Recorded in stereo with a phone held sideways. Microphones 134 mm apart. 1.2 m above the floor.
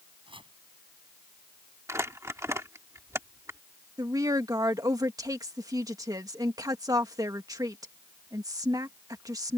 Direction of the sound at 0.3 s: 40° right (ahead or behind).